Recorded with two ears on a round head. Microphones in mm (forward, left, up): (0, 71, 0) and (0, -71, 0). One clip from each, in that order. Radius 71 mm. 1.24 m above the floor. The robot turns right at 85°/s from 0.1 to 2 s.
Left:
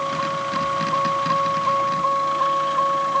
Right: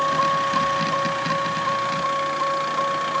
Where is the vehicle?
55° right (ahead or behind); by 3.2 s 80° left.